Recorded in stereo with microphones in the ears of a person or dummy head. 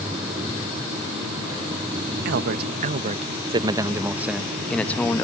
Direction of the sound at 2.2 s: 55° right (ahead or behind).